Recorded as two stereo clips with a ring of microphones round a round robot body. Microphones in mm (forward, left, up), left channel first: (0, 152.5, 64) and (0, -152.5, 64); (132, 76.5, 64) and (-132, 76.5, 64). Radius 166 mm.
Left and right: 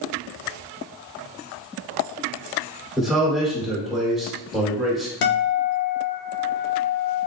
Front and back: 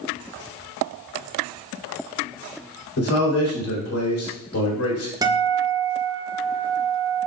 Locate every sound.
3.0 s a man speaking: straight ahead, 2 m
5.2 s a guitar: 105° left, 0.7 m